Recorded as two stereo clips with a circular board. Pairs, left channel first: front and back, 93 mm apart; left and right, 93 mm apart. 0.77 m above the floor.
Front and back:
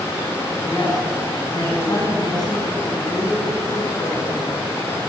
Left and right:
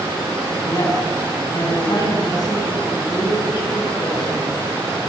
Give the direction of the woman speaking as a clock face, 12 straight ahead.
10 o'clock.